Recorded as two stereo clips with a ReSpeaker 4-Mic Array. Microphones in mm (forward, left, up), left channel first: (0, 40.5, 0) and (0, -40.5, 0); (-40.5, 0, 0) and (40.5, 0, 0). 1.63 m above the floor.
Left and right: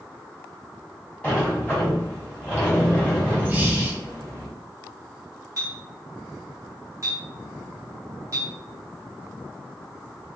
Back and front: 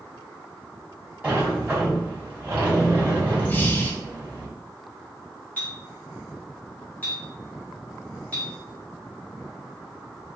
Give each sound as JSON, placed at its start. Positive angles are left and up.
{"t": 1.2, "sound": "a sliding door", "azimuth_deg": 40, "distance_m": 1.4}
{"t": 3.5, "sound": "breathing", "azimuth_deg": -135, "distance_m": 0.5}
{"t": 5.6, "sound": "a clink", "azimuth_deg": -120, "distance_m": 1.1}